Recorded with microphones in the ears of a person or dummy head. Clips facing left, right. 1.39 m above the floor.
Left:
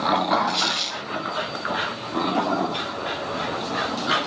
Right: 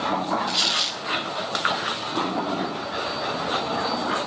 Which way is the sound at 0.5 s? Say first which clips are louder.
Left 2 dB; centre (ahead or behind).